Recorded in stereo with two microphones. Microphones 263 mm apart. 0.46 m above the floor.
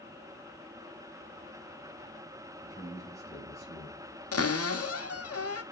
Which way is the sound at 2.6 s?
15° right (ahead or behind).